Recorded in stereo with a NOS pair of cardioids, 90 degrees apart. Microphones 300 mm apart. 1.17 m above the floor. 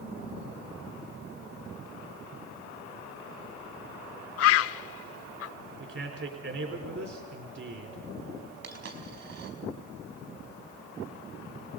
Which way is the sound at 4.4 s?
55° left.